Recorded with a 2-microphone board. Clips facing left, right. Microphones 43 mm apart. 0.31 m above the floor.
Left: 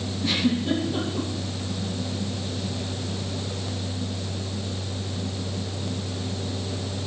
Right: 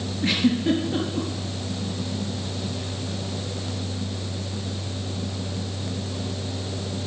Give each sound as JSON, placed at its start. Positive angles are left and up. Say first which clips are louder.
{"t": 0.2, "sound": "a giggle", "louder": "right 3 dB", "side_deg": -40, "distance_m": 3.5}